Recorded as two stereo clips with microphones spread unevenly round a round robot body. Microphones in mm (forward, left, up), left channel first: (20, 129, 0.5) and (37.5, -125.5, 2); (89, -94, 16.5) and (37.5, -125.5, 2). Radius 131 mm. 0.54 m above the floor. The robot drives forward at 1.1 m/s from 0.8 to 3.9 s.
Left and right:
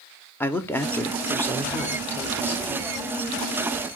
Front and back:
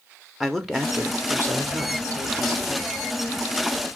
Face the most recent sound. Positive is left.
turn(degrees=180)